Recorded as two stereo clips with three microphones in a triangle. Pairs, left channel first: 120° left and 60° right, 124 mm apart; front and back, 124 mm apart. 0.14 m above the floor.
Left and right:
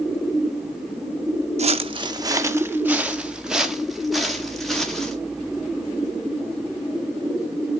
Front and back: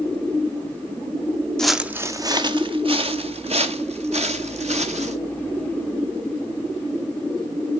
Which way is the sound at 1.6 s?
85° right.